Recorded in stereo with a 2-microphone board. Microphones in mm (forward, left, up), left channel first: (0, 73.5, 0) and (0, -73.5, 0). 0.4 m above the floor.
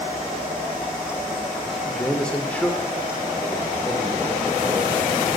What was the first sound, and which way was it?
A man speaking, centre (ahead or behind).